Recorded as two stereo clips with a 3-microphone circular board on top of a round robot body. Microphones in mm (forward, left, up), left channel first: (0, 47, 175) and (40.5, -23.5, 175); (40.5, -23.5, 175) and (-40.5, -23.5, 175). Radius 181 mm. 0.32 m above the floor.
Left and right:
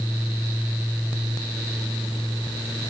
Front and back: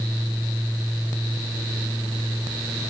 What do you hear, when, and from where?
Only background noise.